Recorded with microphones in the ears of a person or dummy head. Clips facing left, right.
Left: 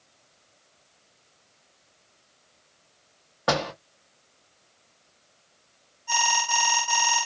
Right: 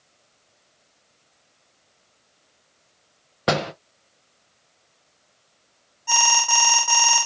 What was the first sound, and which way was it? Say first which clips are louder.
A door slam: right 3 dB; 25° right (ahead or behind).